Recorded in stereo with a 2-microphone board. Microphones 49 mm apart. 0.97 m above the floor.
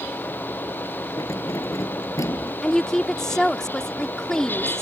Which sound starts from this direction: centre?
A woman speaking, at 2.6 s.